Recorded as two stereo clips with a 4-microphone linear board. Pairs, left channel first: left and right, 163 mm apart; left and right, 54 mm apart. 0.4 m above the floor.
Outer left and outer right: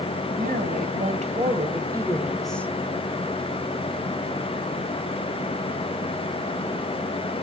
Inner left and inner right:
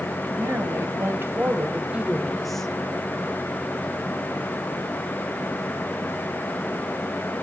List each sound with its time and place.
0.4 s a woman speaking: 60° right (ahead or behind), 3 m; by 2.7 s 15° left (ahead or behind), 1.8 m